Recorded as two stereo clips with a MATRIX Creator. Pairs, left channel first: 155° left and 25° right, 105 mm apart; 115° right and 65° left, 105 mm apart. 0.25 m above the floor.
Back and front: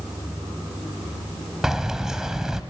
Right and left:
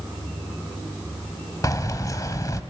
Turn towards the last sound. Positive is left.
turn(degrees=-105)